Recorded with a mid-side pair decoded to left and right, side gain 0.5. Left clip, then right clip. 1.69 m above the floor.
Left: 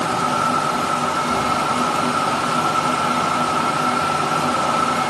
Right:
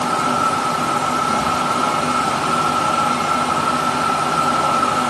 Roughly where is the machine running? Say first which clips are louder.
Right 2 dB; ahead.